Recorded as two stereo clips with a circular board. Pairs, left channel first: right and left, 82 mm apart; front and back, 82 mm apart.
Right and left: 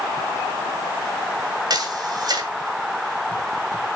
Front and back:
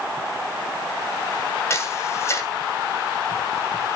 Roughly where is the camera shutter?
Ahead left.